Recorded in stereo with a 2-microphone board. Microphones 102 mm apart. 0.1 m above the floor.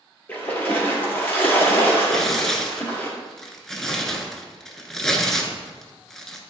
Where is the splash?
20° left (ahead or behind), 1.7 m.